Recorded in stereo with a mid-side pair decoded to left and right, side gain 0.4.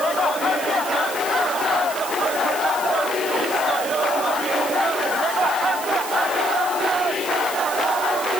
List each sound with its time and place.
Only background noise.